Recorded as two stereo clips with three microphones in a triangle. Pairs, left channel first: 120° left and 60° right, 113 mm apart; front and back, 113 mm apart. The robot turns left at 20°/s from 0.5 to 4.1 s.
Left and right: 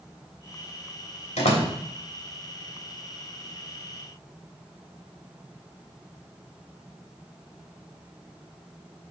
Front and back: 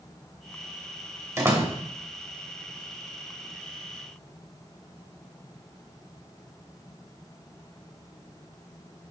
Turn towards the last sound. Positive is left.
turn(degrees=65)